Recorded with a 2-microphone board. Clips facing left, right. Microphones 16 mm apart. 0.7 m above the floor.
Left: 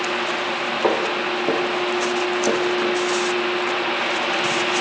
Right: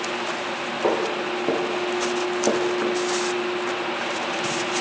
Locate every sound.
0.8 s footsteps: 25° left (ahead or behind), 2.0 m; by 3.0 s 30° right (ahead or behind), 1.8 m